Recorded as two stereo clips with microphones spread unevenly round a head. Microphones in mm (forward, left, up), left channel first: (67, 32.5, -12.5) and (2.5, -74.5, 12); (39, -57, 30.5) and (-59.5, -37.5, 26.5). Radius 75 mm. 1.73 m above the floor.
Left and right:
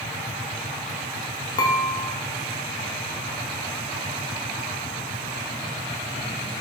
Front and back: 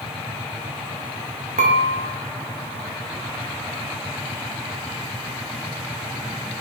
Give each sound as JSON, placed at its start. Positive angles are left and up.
{"t": 1.6, "sound": "dishes clattering", "azimuth_deg": 130, "distance_m": 1.6}